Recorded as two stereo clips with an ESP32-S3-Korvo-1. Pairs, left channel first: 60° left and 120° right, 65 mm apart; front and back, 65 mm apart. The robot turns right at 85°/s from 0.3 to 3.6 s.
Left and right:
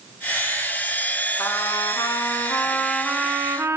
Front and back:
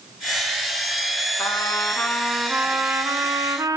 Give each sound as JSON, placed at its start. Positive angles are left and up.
{"t": 1.4, "sound": "a trumpet", "azimuth_deg": 10, "distance_m": 2.0}